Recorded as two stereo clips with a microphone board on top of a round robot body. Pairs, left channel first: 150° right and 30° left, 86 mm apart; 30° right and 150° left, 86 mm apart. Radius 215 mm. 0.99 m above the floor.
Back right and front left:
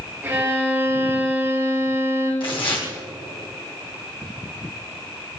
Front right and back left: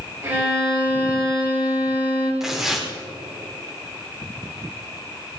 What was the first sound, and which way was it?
A violin, 95° left.